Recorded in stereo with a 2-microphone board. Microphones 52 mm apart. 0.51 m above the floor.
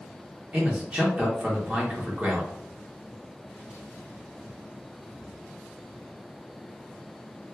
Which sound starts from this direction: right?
A man speaking, at 0.5 s.